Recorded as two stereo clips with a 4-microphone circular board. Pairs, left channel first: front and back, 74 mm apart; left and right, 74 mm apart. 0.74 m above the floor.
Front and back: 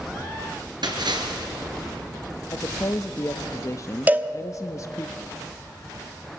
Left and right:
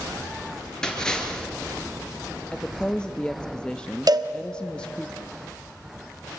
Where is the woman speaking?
15° left, 0.6 m.